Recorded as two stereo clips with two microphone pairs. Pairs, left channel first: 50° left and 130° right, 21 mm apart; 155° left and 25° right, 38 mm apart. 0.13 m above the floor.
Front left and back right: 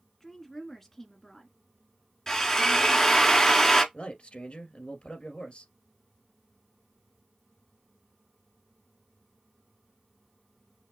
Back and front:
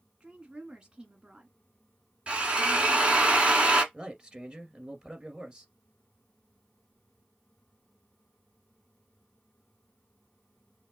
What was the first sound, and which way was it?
A woman speaking, 5° left.